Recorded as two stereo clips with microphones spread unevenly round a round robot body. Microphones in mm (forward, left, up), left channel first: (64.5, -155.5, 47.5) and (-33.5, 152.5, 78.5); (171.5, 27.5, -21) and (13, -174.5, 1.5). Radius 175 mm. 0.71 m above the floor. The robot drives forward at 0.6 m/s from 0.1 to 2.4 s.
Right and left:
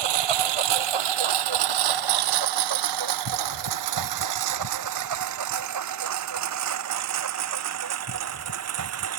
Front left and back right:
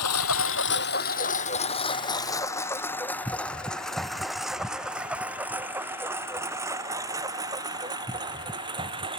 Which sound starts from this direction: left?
A lawn mower, at 0.0 s.